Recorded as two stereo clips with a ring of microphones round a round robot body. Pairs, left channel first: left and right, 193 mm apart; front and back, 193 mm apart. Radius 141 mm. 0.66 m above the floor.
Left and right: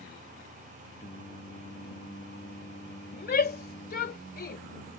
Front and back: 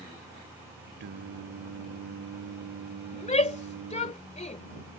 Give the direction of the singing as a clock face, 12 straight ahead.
7 o'clock.